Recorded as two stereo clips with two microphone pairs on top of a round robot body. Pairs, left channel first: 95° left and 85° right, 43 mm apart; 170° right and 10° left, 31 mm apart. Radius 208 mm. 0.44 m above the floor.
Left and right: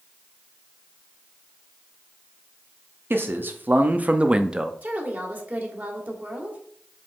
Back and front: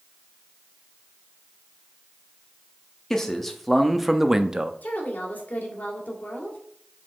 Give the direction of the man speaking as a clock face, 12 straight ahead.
3 o'clock.